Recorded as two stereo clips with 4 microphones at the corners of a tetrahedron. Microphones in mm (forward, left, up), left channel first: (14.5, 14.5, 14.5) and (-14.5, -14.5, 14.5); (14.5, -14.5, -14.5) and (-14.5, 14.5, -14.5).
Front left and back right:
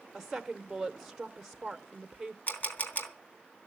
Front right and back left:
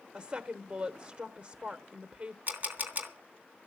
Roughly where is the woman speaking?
Behind left.